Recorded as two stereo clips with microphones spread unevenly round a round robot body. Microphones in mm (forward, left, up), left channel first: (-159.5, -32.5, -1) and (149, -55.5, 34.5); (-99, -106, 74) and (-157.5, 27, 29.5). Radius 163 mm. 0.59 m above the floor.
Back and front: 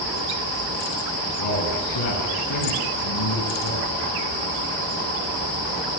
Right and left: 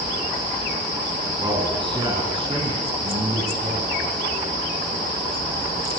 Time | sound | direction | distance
1.4 | a man speaking | 175° left | 8.5 m